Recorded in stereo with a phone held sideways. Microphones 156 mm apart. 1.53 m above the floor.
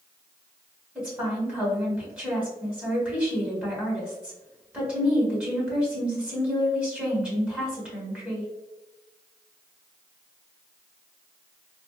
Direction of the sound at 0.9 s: 5° right (ahead or behind).